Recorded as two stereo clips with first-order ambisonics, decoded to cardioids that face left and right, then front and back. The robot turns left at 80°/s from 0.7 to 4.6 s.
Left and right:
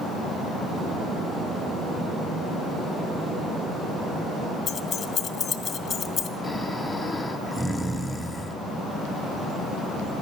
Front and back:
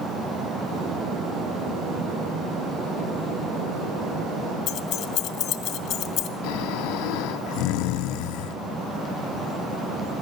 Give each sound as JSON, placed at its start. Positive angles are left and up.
{"t": 4.7, "sound": "keys jangling", "azimuth_deg": 30, "distance_m": 0.8}
{"t": 6.4, "sound": "snoring", "azimuth_deg": 5, "distance_m": 0.7}